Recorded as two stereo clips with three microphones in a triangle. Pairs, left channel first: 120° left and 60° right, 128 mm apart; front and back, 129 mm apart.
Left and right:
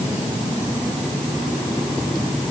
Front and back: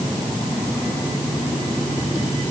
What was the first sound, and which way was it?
Only background noise.